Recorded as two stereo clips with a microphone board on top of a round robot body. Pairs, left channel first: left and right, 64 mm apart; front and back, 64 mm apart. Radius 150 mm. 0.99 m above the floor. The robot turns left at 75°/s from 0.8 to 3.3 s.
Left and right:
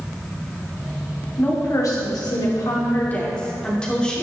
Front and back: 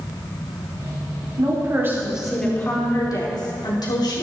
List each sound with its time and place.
1.4 s a woman speaking: 160° left, 3 m; by 4.2 s 15° left, 3 m